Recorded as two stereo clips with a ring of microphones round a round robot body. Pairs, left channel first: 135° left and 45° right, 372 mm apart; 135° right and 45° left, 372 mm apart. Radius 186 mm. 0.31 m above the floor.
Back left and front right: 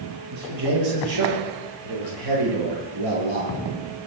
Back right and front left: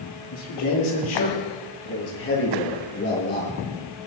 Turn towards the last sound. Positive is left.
turn(degrees=-70)